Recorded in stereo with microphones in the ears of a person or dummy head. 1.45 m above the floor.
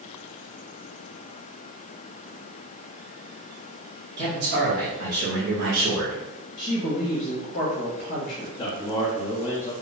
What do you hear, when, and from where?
4.2 s a man speaking: 65° right (ahead or behind), 1.1 m; by 6.2 s 35° right (ahead or behind), 0.8 m
6.6 s a woman speaking: 40° left (ahead or behind), 0.6 m
8.6 s a man speaking: 25° left (ahead or behind), 0.7 m